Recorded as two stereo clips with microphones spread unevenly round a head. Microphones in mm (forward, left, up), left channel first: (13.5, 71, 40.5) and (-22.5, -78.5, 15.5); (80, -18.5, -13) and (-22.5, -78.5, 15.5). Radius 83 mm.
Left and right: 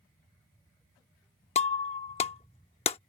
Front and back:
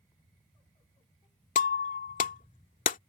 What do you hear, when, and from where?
1.6 s breaking glass: 35° left